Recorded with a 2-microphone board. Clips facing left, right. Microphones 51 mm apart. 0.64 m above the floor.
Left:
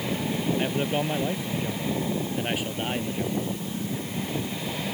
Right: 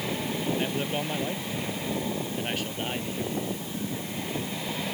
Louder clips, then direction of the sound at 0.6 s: Left 3 dB; 15° left (ahead or behind).